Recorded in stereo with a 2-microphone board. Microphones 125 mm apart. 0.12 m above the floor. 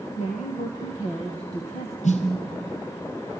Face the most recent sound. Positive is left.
turn(degrees=70)  # may be behind; listen again after turning